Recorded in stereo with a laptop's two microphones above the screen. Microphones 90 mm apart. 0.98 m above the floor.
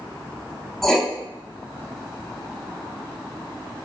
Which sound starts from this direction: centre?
Writing, at 0.8 s.